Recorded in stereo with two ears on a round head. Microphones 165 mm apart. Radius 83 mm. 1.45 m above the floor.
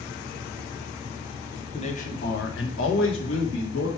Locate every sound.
1.7 s a man speaking: 30° left (ahead or behind), 1.5 m; by 3.9 s 75° left (ahead or behind), 3 m